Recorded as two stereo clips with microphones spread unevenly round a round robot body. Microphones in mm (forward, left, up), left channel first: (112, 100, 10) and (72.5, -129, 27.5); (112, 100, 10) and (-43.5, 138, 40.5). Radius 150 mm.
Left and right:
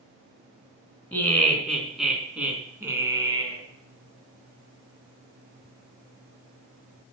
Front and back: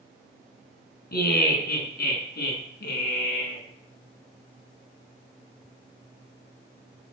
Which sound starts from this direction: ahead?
Laughter, at 1.1 s.